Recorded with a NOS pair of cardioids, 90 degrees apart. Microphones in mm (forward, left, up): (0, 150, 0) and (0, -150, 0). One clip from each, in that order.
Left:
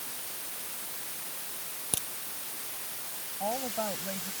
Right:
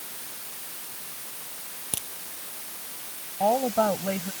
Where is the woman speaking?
70° right.